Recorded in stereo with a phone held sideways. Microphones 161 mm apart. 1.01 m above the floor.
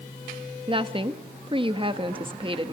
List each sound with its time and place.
0.7 s a woman speaking: 30° right (ahead or behind), 1.4 m